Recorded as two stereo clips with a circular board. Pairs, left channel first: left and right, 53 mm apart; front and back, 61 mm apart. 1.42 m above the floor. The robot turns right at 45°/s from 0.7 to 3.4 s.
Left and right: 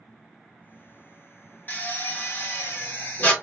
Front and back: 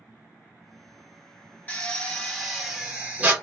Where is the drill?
55° left, 1.4 m; by 3.3 s 125° left, 1.4 m.